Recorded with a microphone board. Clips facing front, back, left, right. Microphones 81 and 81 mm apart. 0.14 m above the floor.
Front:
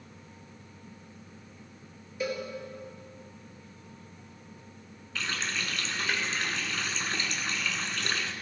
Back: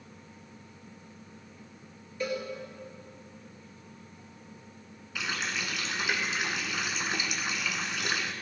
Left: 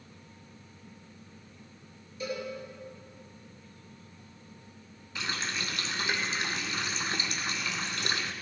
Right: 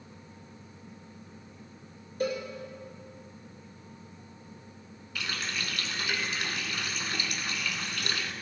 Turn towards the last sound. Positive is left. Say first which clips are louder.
# even, left 1 dB
turn(degrees=115)